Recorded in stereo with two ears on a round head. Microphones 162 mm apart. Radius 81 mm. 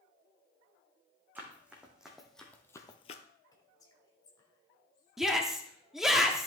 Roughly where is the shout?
Centre.